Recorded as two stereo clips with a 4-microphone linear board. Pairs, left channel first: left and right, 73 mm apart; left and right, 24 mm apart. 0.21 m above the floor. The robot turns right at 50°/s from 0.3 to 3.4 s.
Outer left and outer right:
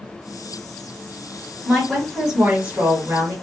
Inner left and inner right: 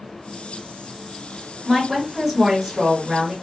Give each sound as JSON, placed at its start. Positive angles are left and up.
{"t": 1.6, "sound": "a woman speaking", "side_deg": 0, "distance_m": 1.4}